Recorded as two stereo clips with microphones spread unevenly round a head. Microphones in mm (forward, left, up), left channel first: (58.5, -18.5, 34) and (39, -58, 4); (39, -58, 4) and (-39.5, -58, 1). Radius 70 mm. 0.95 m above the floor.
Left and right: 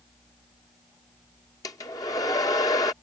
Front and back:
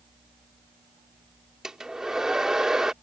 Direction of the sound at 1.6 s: 95° left.